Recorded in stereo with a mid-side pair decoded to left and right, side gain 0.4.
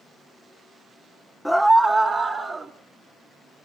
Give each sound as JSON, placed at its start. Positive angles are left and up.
{"t": 1.4, "sound": "a scream", "azimuth_deg": 0, "distance_m": 0.7}